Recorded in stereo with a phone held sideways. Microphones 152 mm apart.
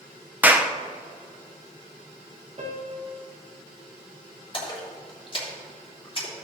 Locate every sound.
0.4 s a clap: 10° right (ahead or behind), 0.7 m
2.6 s a piano: 50° right (ahead or behind), 1.5 m
4.5 s a splash: 35° left (ahead or behind), 3 m